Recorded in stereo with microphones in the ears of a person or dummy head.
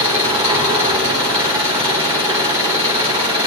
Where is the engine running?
25° right (ahead or behind), 1.4 m.